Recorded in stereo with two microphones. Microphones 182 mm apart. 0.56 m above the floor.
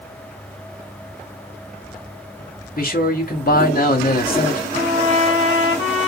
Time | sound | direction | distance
2.8 | a man speaking | 55° left (ahead or behind) | 1.9 m
4.7 | a trumpet | 35° right (ahead or behind) | 1.5 m